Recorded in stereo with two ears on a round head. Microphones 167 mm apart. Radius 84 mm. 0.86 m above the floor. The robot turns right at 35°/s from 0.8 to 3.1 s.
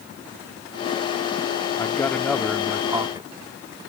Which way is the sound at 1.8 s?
160° left.